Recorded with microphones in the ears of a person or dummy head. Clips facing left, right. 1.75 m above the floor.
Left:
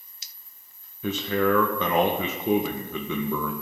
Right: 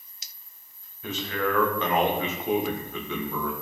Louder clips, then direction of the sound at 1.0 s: Left 5 dB; 75° left (ahead or behind).